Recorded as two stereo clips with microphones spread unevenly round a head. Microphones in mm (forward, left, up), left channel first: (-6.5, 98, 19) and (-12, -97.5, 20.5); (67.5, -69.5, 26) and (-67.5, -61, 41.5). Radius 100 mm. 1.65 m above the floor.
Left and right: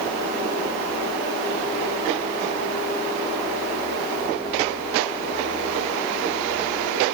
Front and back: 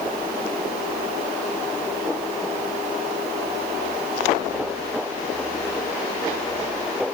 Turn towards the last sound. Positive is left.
No sound to turn to.